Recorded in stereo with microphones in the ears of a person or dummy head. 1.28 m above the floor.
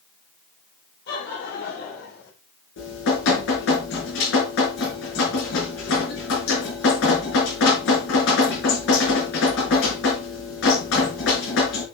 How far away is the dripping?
About 5 m.